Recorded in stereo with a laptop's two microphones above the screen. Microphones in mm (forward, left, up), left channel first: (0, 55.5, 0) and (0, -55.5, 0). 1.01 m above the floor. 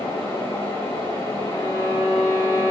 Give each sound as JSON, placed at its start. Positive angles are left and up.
{"t": 0.0, "sound": "a fan", "side_deg": 30, "distance_m": 2.0}
{"t": 1.5, "sound": "a violin", "side_deg": 40, "distance_m": 1.4}